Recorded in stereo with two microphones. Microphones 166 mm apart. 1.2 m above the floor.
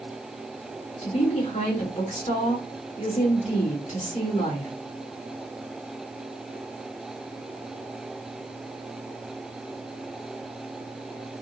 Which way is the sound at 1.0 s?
50° left (ahead or behind).